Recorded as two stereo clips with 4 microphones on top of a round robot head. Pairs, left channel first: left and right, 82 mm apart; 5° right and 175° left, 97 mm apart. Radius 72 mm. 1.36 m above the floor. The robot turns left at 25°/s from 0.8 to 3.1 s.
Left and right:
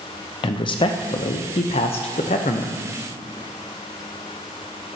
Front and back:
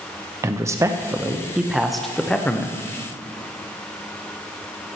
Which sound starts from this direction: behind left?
A man speaking, at 0.4 s.